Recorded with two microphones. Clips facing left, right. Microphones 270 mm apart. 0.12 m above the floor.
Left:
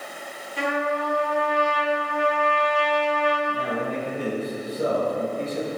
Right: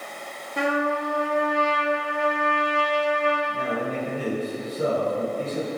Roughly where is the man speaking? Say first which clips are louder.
Even; centre.